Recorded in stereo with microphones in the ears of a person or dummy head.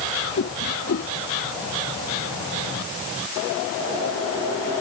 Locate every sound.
0.4 s a whoosh: 65° left (ahead or behind)